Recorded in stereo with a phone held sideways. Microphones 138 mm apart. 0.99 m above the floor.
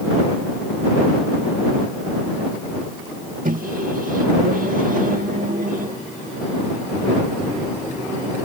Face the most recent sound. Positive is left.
turn(degrees=-75)  # may be behind; listen again after turning